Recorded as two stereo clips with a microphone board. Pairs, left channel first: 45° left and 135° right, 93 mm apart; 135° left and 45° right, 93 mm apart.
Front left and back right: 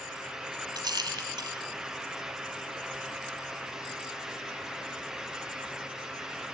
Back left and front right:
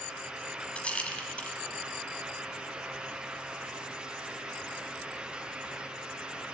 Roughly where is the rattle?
Behind right.